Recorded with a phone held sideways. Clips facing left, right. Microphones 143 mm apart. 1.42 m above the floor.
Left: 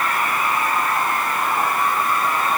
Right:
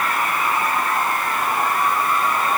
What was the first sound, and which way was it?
Only background noise.